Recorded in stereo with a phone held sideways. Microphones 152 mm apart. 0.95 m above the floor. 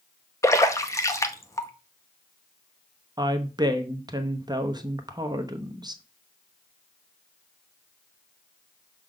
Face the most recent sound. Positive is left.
turn(degrees=-25)  # may be behind; listen again after turning